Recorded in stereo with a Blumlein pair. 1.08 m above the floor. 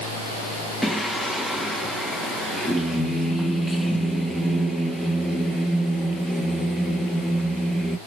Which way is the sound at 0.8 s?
Straight ahead.